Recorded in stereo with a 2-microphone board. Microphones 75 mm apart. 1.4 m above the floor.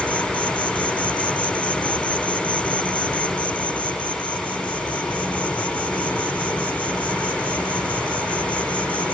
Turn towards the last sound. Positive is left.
turn(degrees=20)  # may be behind; listen again after turning